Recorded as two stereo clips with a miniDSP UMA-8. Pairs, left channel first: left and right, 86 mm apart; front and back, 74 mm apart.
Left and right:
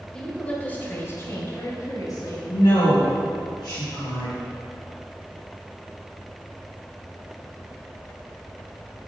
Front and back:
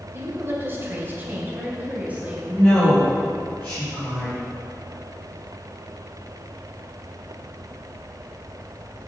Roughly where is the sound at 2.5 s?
Ahead left.